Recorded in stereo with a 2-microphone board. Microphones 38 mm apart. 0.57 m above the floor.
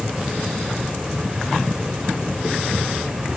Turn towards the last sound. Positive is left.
No sound to turn to.